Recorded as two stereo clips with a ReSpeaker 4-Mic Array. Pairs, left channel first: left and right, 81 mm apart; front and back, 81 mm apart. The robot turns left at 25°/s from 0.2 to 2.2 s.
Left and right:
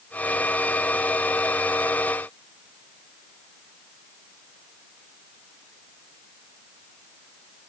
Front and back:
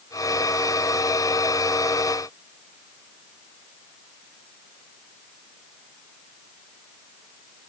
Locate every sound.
Only background noise.